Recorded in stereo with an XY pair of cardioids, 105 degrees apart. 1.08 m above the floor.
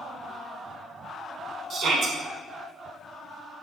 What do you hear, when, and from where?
1.7 s a shout: 65° right, 1.0 m